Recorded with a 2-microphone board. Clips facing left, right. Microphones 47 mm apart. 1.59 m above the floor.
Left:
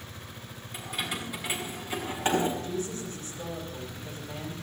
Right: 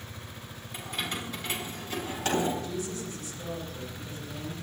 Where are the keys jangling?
Centre (ahead or behind), 5.5 m; by 2.5 s 25° left (ahead or behind), 6.5 m.